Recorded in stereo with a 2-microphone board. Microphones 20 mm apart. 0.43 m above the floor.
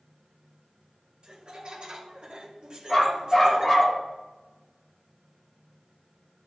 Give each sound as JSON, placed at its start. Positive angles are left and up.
{"t": 1.2, "sound": "laughter", "side_deg": -45, "distance_m": 2.0}
{"t": 2.9, "sound": "a dog barking", "side_deg": 10, "distance_m": 3.0}